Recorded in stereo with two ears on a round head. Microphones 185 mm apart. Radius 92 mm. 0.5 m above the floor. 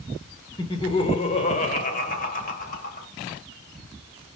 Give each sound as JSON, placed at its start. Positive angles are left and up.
{"t": 0.6, "sound": "laughter", "side_deg": 20, "distance_m": 1.5}